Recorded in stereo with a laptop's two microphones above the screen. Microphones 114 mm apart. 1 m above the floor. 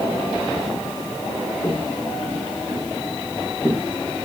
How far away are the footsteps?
About 4 m.